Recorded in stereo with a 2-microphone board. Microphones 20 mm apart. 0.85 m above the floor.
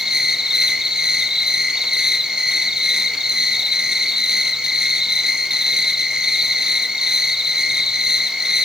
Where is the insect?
40° right (ahead or behind), 4 m.